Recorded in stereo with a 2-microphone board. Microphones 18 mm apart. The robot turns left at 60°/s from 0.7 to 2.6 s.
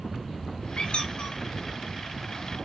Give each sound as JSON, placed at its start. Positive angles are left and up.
{"t": 0.8, "sound": "a squeak", "side_deg": 85, "distance_m": 0.8}